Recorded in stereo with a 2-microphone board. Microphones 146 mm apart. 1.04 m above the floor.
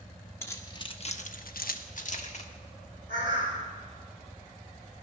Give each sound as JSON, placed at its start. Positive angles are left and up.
{"t": 0.4, "sound": "keys jangling", "side_deg": 15, "distance_m": 1.5}
{"t": 3.1, "sound": "a bird", "side_deg": -65, "distance_m": 3.5}